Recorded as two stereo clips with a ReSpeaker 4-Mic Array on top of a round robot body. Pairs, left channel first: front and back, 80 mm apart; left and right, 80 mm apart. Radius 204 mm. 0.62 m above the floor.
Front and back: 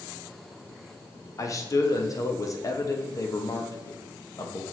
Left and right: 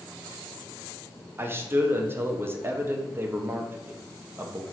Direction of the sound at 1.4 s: 35° right.